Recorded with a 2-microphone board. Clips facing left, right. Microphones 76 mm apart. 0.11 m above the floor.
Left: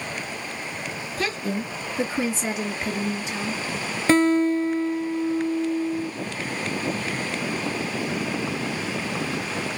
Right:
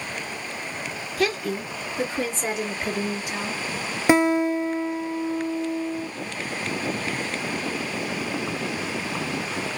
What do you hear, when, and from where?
1.2 s a woman speaking: 30° left (ahead or behind), 1.8 m; by 3.6 s 10° right (ahead or behind), 2.5 m
4.1 s a guitar: 15° right (ahead or behind), 0.7 m